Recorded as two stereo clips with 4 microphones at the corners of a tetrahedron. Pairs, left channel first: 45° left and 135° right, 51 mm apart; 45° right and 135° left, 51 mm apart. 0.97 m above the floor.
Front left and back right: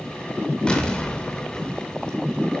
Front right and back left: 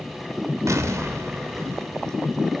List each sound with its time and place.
0.7 s an explosion: 120° left, 2.5 m